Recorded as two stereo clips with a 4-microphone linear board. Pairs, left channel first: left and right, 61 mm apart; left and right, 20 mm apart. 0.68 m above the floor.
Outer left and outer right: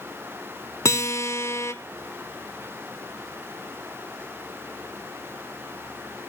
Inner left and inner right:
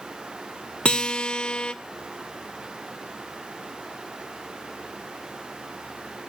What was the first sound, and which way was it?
A guitar, 55° left (ahead or behind).